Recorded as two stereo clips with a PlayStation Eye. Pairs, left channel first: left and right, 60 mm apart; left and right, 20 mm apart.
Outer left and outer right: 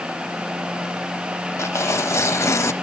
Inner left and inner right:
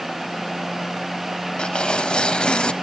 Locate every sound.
1.6 s tearing paper: 55° left (ahead or behind), 0.9 m